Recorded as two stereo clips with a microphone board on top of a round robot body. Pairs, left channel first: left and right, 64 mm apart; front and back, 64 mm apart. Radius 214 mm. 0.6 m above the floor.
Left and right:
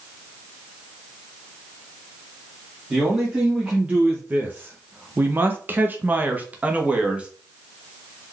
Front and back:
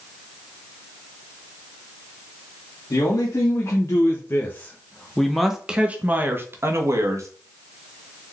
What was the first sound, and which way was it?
A man speaking, 15° right.